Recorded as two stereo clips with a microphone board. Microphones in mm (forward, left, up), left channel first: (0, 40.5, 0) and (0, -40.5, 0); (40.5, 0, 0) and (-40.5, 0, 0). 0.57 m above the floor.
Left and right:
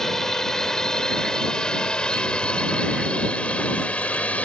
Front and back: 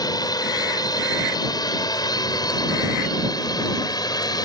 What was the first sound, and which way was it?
A drone, 5° left.